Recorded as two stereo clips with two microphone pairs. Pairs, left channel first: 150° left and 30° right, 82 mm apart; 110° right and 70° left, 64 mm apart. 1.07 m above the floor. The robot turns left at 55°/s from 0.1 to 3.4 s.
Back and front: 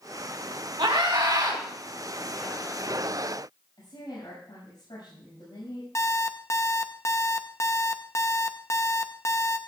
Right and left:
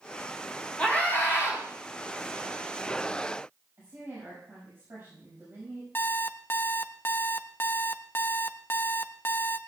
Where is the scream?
45° right, 5 m; by 1.6 s 90° right, 5 m.